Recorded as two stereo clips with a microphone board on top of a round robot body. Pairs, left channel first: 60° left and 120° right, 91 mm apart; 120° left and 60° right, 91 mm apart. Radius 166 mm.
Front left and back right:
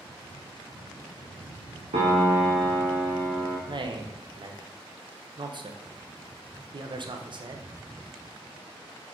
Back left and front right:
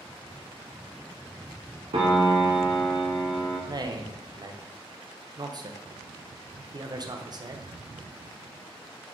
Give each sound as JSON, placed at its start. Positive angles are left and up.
{"t": 1.9, "sound": "a piano", "azimuth_deg": -95, "distance_m": 0.7}
{"t": 3.7, "sound": "a man speaking", "azimuth_deg": -100, "distance_m": 1.1}